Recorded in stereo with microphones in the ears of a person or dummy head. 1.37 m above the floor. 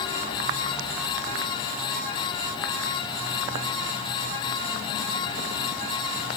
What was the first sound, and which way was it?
Only background noise.